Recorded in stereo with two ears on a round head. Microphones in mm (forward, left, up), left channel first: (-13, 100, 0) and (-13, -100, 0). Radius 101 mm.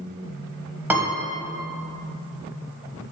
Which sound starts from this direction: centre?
A piano, at 0.9 s.